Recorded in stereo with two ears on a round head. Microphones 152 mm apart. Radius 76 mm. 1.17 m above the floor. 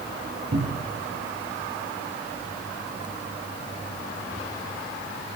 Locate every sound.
0.5 s a cupboard door: 65° right (ahead or behind), 8.5 m